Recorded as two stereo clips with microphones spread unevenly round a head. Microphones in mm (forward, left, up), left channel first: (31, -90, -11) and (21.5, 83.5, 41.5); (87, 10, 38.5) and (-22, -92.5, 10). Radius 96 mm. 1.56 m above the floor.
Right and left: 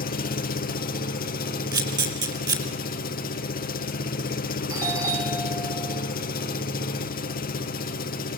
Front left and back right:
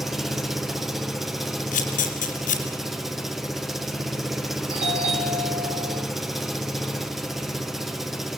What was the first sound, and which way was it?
An engine running, 45° right.